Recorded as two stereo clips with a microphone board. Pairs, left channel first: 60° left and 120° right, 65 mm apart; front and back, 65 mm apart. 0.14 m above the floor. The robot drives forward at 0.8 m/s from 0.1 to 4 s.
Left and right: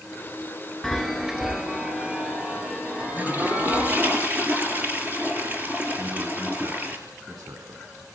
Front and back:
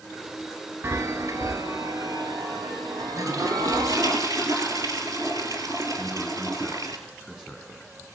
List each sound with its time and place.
0.8 s a chime: 145° left, 1.1 m; by 4.2 s 170° left, 3.5 m
3.2 s a toilet flushing: straight behind, 3 m
6.0 s a man speaking: 95° right, 7 m